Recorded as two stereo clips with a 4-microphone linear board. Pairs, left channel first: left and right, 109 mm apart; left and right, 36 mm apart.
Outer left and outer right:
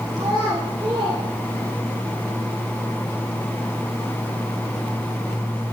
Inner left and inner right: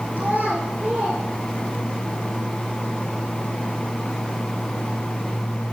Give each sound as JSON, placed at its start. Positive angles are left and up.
{"t": 0.2, "sound": "a child speaking", "side_deg": -35, "distance_m": 2.5}